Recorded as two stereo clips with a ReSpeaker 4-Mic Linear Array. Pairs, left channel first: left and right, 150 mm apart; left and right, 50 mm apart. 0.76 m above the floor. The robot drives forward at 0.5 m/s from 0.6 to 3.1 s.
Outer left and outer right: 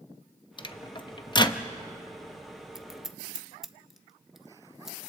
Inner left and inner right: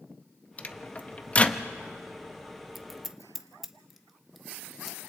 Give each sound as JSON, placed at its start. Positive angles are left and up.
{"t": 0.6, "sound": "a microwave", "side_deg": 35, "distance_m": 0.6}
{"t": 2.8, "sound": "scissors", "side_deg": -5, "distance_m": 0.6}